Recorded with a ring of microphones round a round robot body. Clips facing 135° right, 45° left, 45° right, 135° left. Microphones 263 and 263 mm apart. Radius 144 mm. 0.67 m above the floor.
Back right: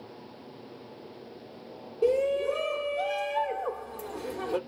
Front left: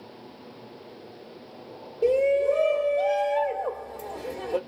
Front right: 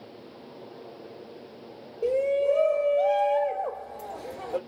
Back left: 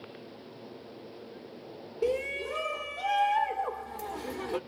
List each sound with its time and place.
2.0 s a shout: 170° left, 1.7 m